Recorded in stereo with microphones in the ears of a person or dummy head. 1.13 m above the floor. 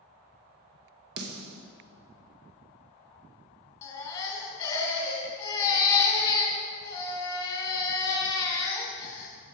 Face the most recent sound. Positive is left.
turn(degrees=20)  # may be behind; listen again after turning